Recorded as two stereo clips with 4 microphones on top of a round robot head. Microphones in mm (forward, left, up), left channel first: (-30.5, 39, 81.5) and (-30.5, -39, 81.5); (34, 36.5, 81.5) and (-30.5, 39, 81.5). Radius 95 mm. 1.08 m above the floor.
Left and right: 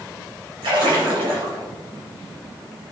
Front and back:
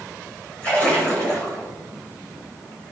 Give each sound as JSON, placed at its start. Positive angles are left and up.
{"t": 0.6, "sound": "a splash", "azimuth_deg": -70, "distance_m": 5.0}